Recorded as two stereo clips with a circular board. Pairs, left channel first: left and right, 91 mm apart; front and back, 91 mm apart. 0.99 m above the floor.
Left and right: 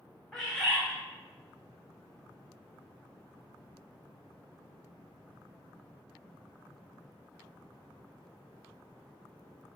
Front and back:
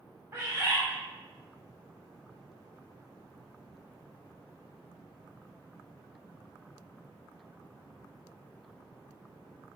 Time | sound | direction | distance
0.3 | a bird | 170° left | 0.7 m